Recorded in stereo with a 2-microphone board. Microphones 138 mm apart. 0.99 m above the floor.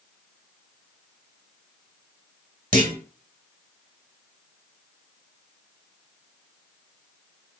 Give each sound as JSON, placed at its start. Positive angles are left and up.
{"t": 2.7, "sound": "a clunk", "side_deg": -65, "distance_m": 1.3}